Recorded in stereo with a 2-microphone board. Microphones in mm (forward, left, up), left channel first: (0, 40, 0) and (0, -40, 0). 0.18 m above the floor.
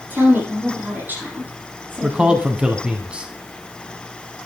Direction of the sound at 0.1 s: 25° right (ahead or behind).